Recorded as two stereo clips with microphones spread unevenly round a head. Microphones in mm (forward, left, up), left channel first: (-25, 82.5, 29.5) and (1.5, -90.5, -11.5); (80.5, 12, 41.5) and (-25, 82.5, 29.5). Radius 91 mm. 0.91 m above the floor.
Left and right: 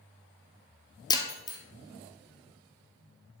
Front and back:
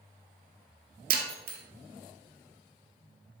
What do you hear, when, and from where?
1.1 s breaking glass: 155° left, 1.6 m